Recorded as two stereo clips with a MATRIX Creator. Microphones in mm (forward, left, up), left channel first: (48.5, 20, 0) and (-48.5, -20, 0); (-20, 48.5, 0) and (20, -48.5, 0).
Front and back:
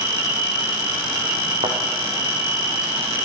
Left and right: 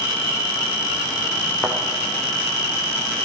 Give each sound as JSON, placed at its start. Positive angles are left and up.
{"t": 0.0, "sound": "an insect", "azimuth_deg": 150, "distance_m": 8.0}
{"t": 1.6, "sound": "a thud", "azimuth_deg": -155, "distance_m": 3.5}